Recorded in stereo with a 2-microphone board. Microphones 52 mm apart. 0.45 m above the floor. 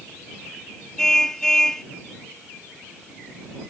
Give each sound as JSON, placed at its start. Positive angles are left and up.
{"t": 1.0, "sound": "a car horn", "side_deg": 10}